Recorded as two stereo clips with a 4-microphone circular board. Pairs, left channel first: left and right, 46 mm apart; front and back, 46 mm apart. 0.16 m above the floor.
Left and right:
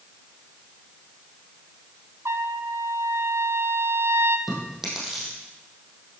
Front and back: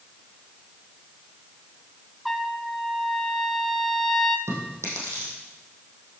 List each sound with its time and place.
2.2 s a trumpet: 90° right, 0.8 m
4.5 s chewing: 175° right, 4.5 m